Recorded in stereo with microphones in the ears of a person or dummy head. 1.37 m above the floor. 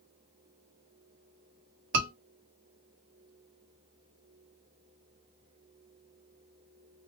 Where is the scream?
70° right (ahead or behind), 1.5 m.